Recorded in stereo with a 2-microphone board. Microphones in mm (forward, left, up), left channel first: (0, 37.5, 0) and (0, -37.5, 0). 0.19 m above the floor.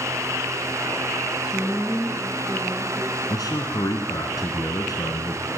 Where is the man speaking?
55° left (ahead or behind), 2 m.